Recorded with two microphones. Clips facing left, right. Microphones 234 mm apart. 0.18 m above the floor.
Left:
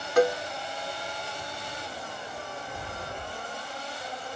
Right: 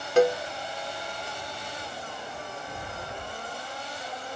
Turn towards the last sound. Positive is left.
turn(degrees=-25)  # may be behind; listen again after turning